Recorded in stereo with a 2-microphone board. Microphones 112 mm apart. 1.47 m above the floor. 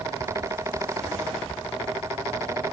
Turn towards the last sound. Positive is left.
No sound to turn to.